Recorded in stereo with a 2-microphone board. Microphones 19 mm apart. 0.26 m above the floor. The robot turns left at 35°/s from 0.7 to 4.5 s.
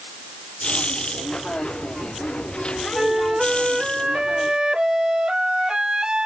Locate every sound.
3.0 s a flute: 5° right, 0.6 m; by 6.2 s 60° right, 0.6 m